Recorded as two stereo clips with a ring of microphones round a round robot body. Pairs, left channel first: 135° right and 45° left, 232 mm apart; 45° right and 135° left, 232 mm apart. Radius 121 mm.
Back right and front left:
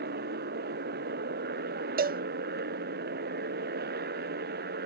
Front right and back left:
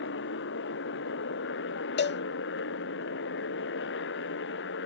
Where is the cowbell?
5° right.